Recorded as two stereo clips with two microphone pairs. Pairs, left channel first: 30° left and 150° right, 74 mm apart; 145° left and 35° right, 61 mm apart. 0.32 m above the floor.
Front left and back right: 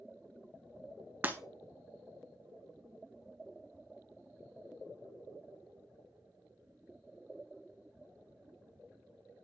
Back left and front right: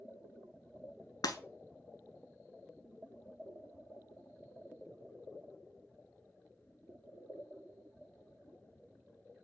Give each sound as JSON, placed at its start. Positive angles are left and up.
{"t": 1.2, "sound": "breaking glass", "azimuth_deg": 140, "distance_m": 0.7}